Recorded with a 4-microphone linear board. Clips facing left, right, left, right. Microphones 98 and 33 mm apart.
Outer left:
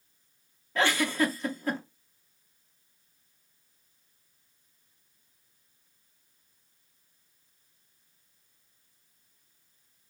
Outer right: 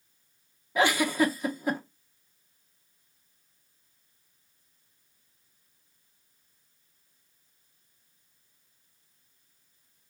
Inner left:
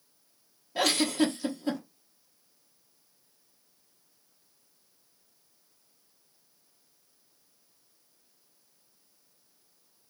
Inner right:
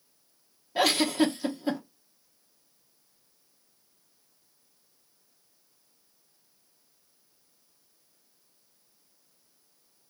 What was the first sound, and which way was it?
A giggle, 10° right (ahead or behind).